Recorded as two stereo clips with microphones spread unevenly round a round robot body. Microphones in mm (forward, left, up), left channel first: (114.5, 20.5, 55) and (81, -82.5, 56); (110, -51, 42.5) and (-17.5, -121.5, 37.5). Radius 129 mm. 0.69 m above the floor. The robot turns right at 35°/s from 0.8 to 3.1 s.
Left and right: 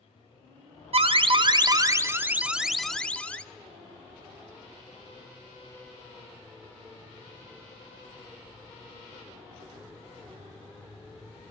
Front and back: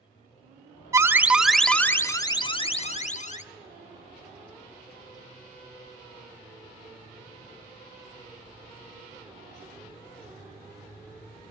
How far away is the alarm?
About 1.3 m.